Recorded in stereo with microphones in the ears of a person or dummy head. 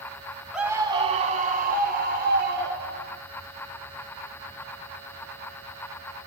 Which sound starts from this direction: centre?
A scream, at 0.5 s.